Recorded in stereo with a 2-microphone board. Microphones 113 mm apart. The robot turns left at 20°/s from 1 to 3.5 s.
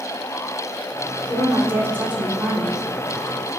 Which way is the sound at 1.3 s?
150° right.